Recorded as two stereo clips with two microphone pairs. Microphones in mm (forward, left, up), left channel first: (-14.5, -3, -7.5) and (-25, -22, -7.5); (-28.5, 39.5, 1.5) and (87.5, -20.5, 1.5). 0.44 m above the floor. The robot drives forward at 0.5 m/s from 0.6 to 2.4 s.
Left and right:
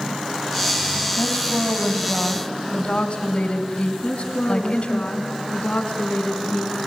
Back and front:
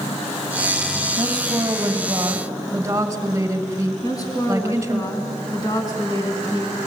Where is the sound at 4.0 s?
90° left, 4 m.